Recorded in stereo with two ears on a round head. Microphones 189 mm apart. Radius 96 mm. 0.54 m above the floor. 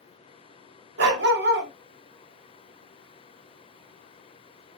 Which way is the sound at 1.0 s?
50° right (ahead or behind).